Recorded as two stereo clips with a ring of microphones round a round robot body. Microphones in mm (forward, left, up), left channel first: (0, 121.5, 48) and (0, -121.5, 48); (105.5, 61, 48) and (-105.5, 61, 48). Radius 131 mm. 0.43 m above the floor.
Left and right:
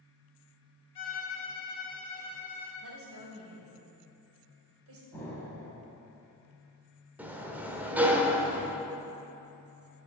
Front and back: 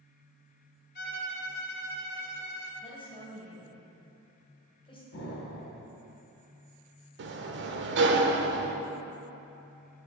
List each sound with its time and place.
0.9 s a violin: 25° left, 3 m
2.8 s a woman speaking: 70° right, 2.5 m
5.1 s an explosion: 5° left, 3 m
7.2 s a sliding door: 170° right, 0.9 m